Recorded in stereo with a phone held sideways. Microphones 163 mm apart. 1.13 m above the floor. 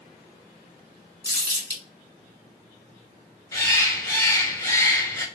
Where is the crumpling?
25° left (ahead or behind), 1.7 m.